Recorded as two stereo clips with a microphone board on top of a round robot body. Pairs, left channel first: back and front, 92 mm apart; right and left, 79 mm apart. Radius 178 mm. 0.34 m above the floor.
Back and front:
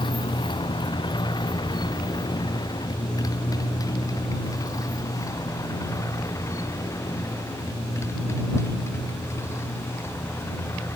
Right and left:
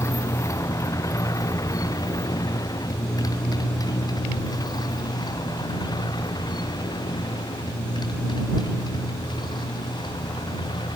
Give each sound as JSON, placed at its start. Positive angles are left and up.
{"t": 0.0, "sound": "a motorcycle", "azimuth_deg": -145}